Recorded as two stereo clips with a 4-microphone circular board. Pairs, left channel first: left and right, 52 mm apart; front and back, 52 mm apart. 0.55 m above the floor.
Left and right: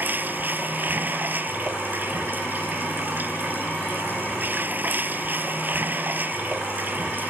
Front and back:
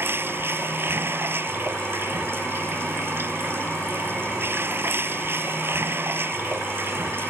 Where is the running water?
140° right.